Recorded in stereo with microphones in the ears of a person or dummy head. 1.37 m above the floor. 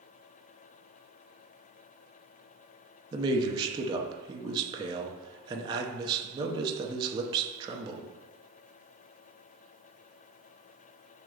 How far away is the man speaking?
About 0.6 m.